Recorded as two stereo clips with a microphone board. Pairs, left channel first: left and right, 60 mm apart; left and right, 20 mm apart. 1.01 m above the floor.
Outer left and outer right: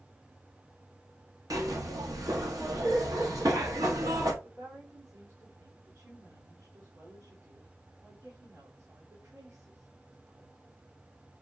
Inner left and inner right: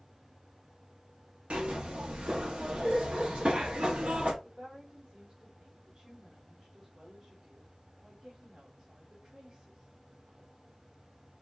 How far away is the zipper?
About 1.1 m.